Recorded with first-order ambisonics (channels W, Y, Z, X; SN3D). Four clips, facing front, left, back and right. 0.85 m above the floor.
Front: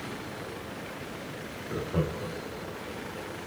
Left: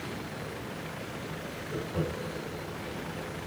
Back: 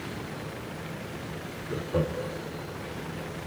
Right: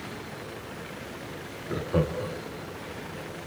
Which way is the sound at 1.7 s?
90° right.